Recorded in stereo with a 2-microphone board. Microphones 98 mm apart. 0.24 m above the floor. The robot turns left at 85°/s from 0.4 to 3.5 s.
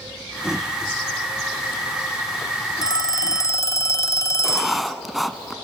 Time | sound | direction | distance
2.8 | a phone ringing | 110° left | 0.9 m
4.4 | writing | centre (ahead or behind) | 1.0 m